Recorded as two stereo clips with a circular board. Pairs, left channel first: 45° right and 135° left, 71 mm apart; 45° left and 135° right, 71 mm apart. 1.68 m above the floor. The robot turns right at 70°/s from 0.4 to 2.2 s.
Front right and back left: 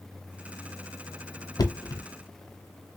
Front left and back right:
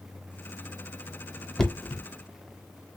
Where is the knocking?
40° right, 0.6 m; by 2.0 s 10° right, 0.6 m.